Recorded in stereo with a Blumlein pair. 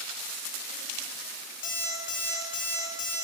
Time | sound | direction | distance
1.6 | an alarm clock | 55° left | 1.5 m